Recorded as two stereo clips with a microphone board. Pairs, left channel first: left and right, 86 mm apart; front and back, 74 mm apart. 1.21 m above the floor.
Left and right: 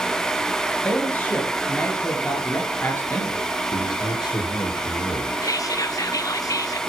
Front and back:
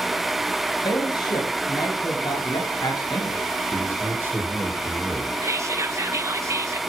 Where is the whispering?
135° left, 0.6 m.